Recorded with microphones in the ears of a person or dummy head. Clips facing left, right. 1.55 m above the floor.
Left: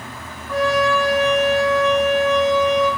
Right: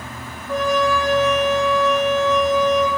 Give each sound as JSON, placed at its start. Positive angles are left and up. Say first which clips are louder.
{"t": 0.5, "sound": "a trumpet", "louder": "left 1 dB", "side_deg": -35, "distance_m": 0.9}